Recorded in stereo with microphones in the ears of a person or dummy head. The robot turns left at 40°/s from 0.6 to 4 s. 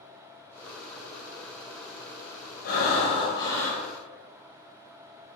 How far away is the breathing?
About 1.1 m.